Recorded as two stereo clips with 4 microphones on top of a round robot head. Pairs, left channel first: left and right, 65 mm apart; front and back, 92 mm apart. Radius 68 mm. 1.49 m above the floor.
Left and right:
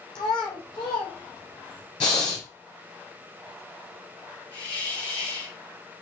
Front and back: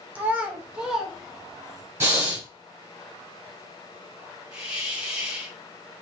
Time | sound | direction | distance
0.1 | a child speaking | 115° left | 1.1 m
2.0 | breathing | 125° left | 1.9 m
4.5 | a hiss | 100° left | 2.5 m